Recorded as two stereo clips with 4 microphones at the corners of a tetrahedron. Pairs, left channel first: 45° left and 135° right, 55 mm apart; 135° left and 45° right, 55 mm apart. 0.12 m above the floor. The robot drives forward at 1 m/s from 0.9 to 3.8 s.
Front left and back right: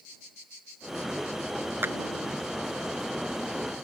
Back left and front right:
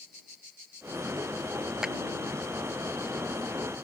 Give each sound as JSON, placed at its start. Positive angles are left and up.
{"t": 1.8, "sound": "a clap", "azimuth_deg": -115}